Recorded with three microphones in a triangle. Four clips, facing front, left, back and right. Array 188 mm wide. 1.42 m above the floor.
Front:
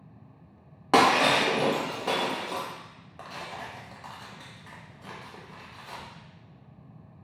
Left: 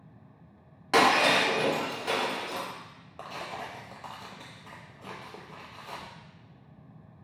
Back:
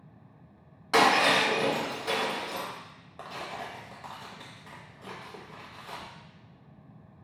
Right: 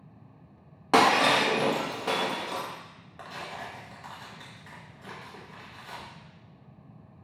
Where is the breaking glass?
30° right, 0.7 m.